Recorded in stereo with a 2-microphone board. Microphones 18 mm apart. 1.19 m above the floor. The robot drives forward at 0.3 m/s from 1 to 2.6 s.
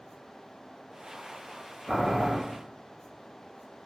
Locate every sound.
1.9 s boiling: 75° right (ahead or behind), 2.5 m; by 2.4 s 80° right, 2.5 m